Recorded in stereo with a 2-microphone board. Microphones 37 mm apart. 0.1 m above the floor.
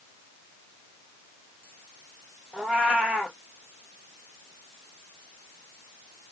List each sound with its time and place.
2.5 s a cat meowing: 25° right (ahead or behind), 1.7 m